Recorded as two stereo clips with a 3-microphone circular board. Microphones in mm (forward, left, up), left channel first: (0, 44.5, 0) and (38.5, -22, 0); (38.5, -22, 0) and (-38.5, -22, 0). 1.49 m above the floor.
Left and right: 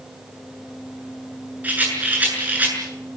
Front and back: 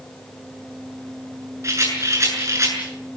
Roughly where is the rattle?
Behind right.